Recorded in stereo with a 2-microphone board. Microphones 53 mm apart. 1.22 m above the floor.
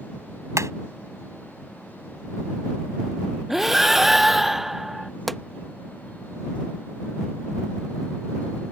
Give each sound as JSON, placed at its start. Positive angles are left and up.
{"t": 0.6, "sound": "hammering", "side_deg": -70}
{"t": 3.5, "sound": "breathing", "side_deg": -5}
{"t": 5.3, "sound": "a pop", "side_deg": 5}